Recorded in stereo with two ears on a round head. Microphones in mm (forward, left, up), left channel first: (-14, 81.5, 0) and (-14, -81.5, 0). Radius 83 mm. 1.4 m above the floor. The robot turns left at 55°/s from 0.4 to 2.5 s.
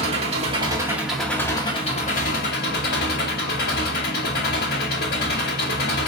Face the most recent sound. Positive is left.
turn(degrees=105)